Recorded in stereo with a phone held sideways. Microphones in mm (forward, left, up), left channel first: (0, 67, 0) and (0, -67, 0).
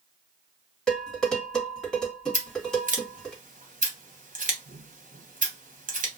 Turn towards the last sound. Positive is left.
turn(degrees=-80)